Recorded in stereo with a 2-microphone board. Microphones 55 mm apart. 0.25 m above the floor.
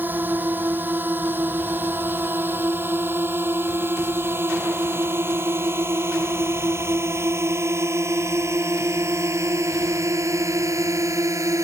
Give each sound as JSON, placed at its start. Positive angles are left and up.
{"t": 0.0, "sound": "a drone", "side_deg": -40}